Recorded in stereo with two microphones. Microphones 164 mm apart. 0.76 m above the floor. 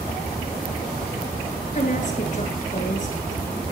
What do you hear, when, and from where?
1.8 s a woman speaking: 50° left (ahead or behind), 9.5 m